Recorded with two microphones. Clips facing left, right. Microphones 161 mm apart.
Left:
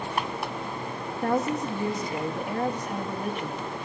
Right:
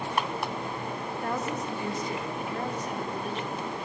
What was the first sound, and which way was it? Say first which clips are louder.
A woman speaking: left 7 dB; 55° left (ahead or behind).